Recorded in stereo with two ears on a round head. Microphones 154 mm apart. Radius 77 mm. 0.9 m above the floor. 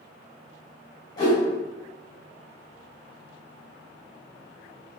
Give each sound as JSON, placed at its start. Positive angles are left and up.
{"t": 1.2, "sound": "a whoosh", "side_deg": 25, "distance_m": 1.9}